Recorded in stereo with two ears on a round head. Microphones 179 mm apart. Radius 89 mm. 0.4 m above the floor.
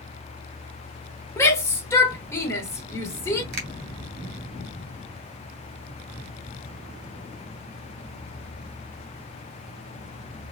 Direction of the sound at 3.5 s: 55° right (ahead or behind).